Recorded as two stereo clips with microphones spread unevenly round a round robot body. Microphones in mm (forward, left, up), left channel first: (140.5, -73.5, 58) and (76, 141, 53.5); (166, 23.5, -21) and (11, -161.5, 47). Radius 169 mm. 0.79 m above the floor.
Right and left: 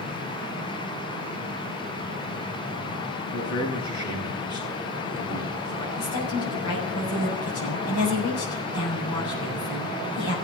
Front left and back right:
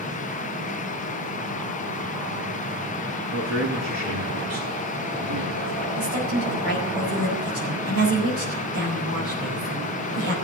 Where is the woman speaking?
105° right, 4.5 m.